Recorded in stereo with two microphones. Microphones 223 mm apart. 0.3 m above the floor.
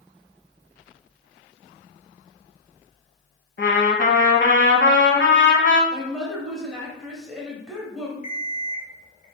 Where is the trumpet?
55° left (ahead or behind), 0.7 m.